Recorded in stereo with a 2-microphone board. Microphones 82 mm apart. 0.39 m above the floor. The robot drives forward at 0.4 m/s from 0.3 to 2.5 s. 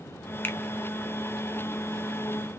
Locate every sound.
0.4 s a finger snap: 25° left (ahead or behind), 0.8 m